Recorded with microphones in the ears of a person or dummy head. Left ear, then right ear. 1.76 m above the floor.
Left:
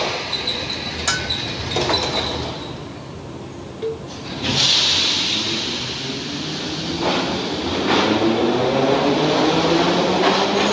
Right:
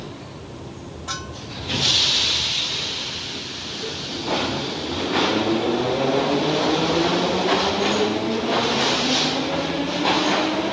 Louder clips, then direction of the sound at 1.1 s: Left 9 dB; 55° left (ahead or behind).